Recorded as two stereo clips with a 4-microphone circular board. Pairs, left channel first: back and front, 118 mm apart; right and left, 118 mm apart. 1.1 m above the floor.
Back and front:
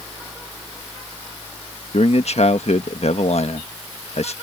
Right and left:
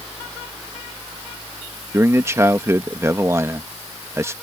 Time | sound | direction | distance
1.9 | a man speaking | 155° left | ?